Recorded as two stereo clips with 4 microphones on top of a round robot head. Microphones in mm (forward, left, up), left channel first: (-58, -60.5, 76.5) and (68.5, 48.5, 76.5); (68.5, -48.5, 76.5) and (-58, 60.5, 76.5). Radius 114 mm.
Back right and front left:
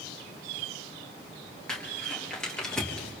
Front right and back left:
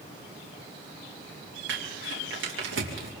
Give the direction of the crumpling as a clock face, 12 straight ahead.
8 o'clock.